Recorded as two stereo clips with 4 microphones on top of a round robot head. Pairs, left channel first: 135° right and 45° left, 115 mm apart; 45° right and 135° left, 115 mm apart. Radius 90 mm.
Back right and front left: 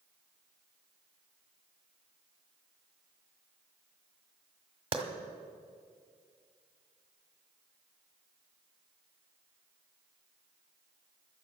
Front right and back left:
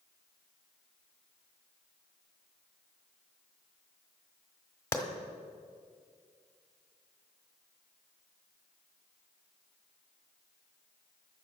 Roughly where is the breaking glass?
No breaking glass in this recording.